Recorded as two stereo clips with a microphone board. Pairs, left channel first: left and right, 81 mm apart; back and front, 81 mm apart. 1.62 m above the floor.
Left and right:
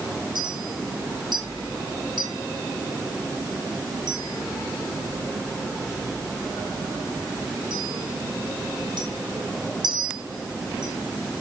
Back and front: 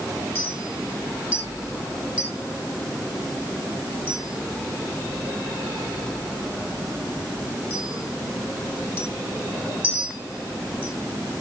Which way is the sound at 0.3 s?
70° right.